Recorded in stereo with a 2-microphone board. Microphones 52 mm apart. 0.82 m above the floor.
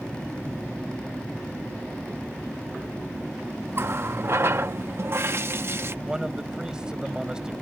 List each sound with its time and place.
3.7 s a running tap: 50° right (ahead or behind)
6.0 s a man speaking: 15° right (ahead or behind)